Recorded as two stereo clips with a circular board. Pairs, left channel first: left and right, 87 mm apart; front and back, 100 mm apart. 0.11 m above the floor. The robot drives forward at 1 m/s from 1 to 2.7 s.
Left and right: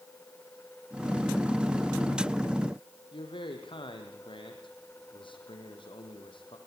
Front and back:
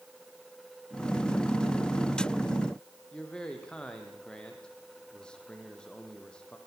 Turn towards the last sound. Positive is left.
turn(degrees=80)